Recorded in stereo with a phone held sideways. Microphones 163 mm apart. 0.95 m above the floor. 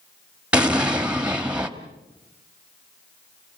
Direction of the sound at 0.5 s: 5° right (ahead or behind).